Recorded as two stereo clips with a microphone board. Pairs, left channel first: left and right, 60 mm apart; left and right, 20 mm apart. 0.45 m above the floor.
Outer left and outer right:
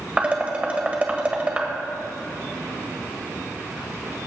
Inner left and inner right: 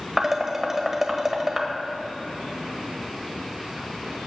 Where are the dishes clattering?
20° right (ahead or behind), 1.4 m.